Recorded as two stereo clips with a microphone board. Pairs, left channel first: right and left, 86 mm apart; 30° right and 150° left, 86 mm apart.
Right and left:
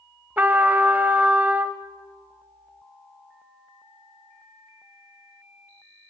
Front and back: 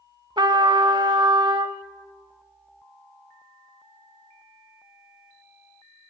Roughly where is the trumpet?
Behind.